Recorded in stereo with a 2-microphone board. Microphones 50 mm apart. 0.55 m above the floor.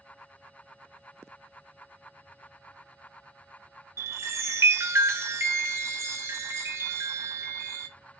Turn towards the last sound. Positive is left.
turn(degrees=-65)  # may be behind; listen again after turning